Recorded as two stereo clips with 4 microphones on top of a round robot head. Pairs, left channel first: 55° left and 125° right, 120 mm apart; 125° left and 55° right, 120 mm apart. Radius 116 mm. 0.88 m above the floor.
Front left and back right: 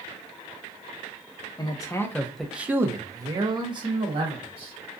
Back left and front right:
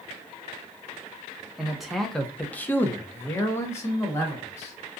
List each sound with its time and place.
1.6 s a man speaking: 30° left, 0.7 m; by 4.7 s 165° right, 1.4 m